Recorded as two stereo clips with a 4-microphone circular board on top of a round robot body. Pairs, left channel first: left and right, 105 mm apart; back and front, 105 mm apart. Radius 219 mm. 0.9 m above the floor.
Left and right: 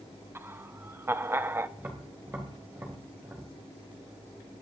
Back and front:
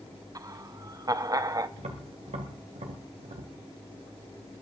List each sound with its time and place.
0.3 s laughter: 30° right, 1.1 m
1.8 s tapping: 20° right, 1.6 m